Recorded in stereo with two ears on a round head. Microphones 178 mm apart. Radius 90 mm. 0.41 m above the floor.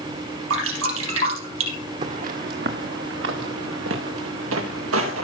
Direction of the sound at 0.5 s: 85° right.